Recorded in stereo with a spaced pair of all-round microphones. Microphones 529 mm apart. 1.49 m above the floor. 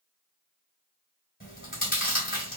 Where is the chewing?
15° left (ahead or behind), 1.5 m.